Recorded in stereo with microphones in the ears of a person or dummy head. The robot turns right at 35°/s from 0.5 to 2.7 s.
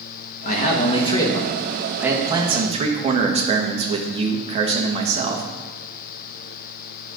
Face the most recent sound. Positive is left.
turn(degrees=-150)